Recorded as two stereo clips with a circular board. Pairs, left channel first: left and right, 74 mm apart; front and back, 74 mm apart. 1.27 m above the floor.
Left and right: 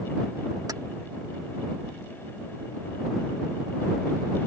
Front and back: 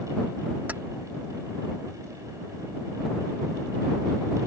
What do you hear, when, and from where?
0.7 s keys jangling: 115° right